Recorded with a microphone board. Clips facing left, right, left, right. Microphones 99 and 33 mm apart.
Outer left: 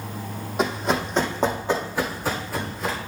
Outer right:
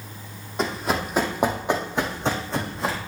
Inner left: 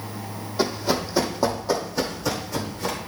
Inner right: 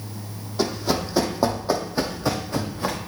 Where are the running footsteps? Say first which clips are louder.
Outer left 2 dB, even; 5° left (ahead or behind), 1.4 m; by 3.0 s 30° right (ahead or behind), 2.5 m.